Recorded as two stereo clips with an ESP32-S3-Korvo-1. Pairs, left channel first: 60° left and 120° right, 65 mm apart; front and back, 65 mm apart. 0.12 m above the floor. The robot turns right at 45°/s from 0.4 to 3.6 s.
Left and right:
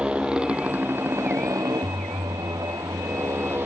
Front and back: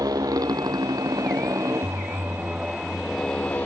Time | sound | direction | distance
0.0 | a motorcycle | 165° left | ?